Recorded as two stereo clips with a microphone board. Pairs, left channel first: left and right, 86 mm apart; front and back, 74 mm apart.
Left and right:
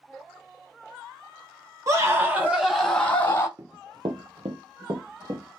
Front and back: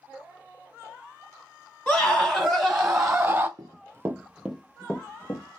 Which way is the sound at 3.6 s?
145° right.